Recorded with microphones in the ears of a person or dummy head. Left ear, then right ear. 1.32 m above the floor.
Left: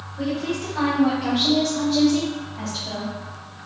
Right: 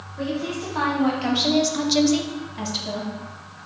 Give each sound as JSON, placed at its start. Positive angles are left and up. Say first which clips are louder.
{"t": 0.2, "sound": "a woman speaking", "louder": "left 1 dB", "side_deg": -20, "distance_m": 1.4}